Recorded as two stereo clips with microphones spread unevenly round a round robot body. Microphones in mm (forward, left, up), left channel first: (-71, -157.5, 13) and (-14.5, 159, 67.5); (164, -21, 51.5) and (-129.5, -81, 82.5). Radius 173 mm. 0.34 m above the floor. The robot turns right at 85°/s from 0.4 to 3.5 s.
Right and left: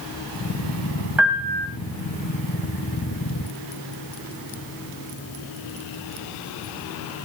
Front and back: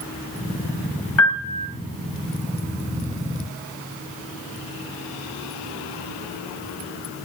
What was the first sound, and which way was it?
A piano, 10° right.